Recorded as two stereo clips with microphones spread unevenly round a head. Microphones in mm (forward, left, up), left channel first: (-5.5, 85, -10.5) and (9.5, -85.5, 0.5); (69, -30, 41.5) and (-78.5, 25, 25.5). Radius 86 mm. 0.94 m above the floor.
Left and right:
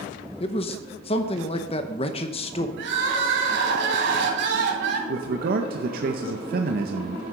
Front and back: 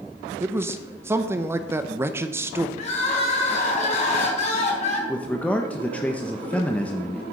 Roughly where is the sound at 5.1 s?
Right.